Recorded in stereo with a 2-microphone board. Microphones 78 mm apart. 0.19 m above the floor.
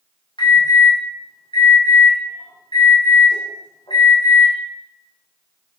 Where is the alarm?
80° left, 7 m.